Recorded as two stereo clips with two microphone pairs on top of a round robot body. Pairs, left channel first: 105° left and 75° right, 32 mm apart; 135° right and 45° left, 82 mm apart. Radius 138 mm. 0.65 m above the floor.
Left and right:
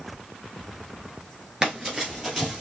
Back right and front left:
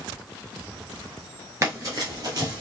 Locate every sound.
1.6 s running footsteps: 10° right, 0.7 m; by 2.6 s straight ahead, 1.3 m